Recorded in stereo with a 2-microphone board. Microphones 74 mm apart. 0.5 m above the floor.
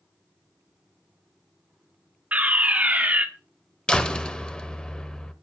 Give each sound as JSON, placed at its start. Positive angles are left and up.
{"t": 2.3, "sound": "a fire alarm", "side_deg": -20, "distance_m": 1.7}
{"t": 3.9, "sound": "a door slam", "side_deg": 10, "distance_m": 1.2}